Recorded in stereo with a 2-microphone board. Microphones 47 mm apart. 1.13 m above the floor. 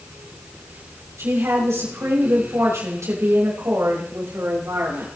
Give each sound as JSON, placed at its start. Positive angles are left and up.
{"t": 1.2, "sound": "a woman speaking", "side_deg": -90, "distance_m": 5.5}